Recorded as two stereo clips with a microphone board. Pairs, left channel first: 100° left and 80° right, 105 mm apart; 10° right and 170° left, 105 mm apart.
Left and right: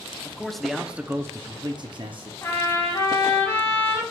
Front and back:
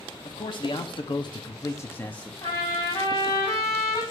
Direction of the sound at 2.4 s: 45° left.